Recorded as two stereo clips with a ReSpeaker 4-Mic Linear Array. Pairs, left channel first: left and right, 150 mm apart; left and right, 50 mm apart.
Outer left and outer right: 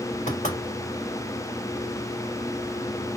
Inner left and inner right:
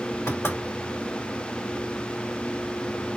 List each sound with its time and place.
0.3 s knocking: 60° left (ahead or behind), 3 m